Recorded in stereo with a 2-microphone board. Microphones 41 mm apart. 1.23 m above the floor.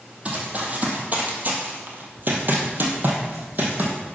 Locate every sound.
0.2 s running footsteps: 35° right (ahead or behind), 2 m; by 4.0 s 45° right (ahead or behind), 2.5 m